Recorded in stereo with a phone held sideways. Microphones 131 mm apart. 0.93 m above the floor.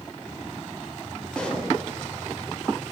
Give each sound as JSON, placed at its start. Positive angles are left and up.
{"t": 1.3, "sound": "a pop", "side_deg": 5, "distance_m": 2.5}